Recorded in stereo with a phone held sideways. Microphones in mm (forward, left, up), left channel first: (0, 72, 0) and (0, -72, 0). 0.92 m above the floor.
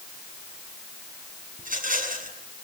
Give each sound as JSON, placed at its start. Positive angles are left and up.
{"t": 1.6, "sound": "a rattle", "side_deg": -70, "distance_m": 7.0}